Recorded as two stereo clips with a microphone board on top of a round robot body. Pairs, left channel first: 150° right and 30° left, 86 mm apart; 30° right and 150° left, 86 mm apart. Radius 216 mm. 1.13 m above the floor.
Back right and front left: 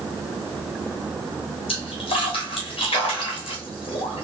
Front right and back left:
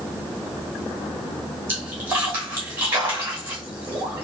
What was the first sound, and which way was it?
A splash, 140° right.